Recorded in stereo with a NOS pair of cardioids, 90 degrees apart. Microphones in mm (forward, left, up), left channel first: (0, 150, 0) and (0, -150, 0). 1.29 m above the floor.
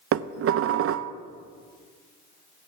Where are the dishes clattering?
50° right, 0.7 m.